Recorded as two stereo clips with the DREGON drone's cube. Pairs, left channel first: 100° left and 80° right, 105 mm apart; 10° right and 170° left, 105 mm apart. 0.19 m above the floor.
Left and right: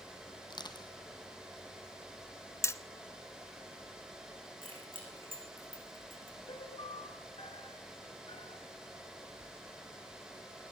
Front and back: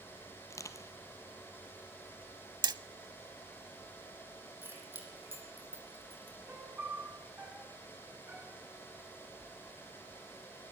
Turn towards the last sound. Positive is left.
turn(degrees=100)